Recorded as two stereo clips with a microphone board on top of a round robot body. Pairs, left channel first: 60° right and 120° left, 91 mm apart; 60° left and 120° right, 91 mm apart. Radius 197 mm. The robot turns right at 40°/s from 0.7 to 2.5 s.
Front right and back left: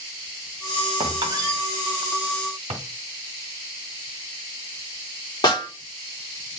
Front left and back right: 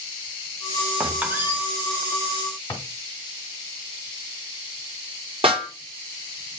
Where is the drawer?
125° left, 1.5 m.